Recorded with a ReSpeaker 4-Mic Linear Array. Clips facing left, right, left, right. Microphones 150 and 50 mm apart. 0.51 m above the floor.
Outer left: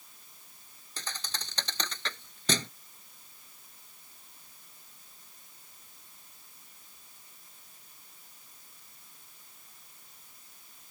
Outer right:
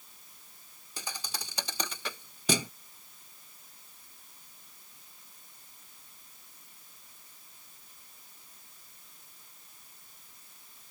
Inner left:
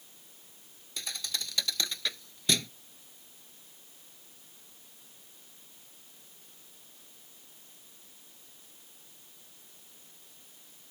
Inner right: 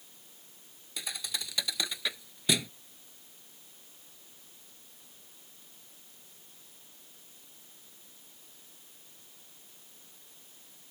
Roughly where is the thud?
Centre.